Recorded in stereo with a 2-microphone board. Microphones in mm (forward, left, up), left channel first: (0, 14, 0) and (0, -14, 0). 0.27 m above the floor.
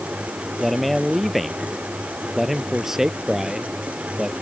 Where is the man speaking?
Centre (ahead or behind); by 4.3 s 25° right (ahead or behind).